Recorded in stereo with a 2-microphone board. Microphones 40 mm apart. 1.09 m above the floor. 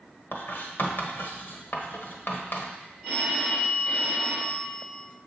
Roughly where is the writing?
Left.